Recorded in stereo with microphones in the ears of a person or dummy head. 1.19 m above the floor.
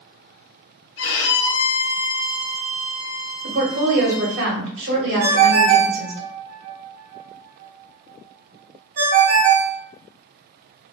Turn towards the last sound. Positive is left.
turn(degrees=-50)  # may be behind; listen again after turning